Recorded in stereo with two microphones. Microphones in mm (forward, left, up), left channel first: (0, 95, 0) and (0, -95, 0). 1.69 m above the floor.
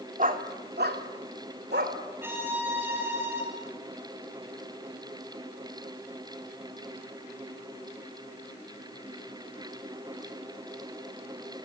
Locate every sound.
0.2 s a dog barking: 45° right (ahead or behind), 2.0 m; by 2.0 s 60° right (ahead or behind), 3 m
2.2 s a violin: 10° right (ahead or behind), 7 m